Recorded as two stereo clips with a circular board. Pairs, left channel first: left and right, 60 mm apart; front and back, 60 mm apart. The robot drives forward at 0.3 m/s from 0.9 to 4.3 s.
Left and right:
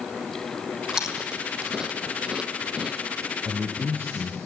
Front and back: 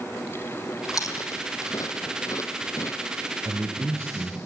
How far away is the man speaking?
About 2.5 m.